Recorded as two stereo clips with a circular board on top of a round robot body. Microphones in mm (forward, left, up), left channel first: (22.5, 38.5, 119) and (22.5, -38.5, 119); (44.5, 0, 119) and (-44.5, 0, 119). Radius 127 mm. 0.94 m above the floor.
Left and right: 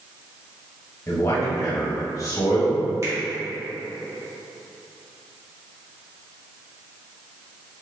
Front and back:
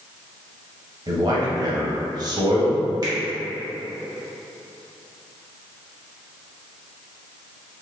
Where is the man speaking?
140° left, 1.4 m.